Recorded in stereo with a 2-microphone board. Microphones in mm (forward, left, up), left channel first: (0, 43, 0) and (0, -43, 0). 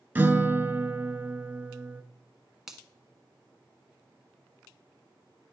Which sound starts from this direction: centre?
A finger snap, at 2.7 s.